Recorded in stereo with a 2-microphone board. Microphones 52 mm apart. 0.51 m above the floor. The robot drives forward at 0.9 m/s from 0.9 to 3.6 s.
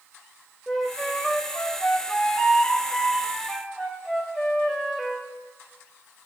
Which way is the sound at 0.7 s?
15° left (ahead or behind).